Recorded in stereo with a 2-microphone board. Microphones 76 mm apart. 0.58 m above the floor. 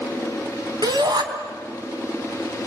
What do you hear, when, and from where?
0.8 s a shout: 65° right (ahead or behind), 3.5 m